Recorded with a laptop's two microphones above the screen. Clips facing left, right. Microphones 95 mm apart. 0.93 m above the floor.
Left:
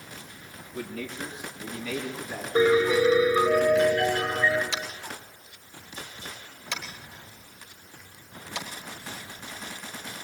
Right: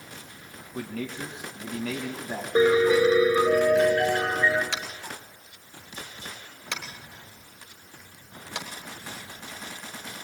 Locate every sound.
0.7 s a man speaking: 70° right (ahead or behind), 5.5 m; by 2.5 s 60° right (ahead or behind), 6 m
2.5 s a piano: 30° right (ahead or behind), 5 m
4.7 s tapping: 60° right (ahead or behind), 3 m